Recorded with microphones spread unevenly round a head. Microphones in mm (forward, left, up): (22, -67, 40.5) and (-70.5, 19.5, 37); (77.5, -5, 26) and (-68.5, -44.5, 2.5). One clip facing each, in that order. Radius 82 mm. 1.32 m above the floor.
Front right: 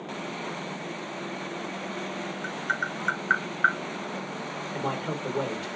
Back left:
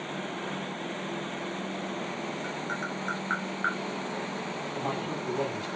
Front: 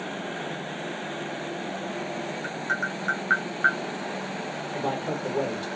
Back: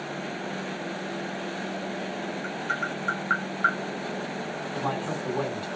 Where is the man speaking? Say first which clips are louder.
Front right 3 dB, front 2 dB; 45° right, 1.4 m.